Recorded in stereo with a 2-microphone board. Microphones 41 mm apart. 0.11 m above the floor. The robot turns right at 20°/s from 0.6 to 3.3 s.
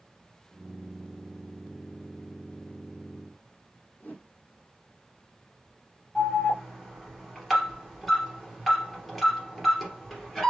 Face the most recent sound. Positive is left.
turn(degrees=5)  # may be behind; listen again after turning